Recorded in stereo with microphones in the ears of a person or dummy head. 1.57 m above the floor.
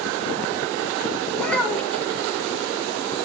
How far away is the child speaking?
About 1.5 m.